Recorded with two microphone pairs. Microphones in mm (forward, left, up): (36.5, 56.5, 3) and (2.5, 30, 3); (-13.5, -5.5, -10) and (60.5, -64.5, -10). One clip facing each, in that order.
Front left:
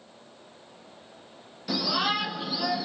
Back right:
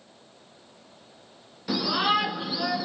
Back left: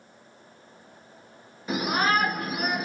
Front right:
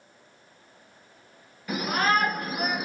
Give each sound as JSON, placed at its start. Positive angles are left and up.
{"t": 1.7, "sound": "a shout", "azimuth_deg": 150, "distance_m": 1.1}